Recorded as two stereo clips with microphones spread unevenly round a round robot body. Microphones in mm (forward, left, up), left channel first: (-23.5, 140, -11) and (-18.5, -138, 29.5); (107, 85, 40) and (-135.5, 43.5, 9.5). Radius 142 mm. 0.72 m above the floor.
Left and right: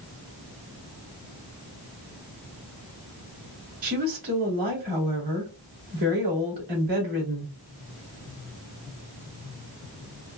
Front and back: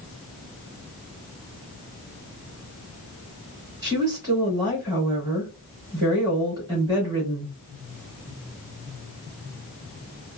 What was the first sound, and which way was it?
A woman speaking, 95° right.